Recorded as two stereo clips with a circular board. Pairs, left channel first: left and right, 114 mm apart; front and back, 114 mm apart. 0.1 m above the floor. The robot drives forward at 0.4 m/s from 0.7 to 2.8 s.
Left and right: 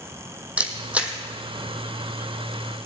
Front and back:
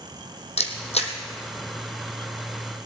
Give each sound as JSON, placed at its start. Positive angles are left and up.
{"t": 0.6, "sound": "a camera shutter", "azimuth_deg": -10, "distance_m": 1.4}